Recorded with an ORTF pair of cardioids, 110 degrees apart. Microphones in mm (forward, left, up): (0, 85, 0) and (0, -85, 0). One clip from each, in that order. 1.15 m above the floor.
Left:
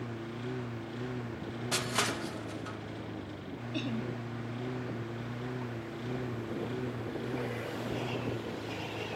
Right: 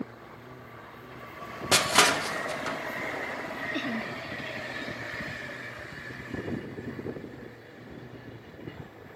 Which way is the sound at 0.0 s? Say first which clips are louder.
Left 2 dB; 70° left.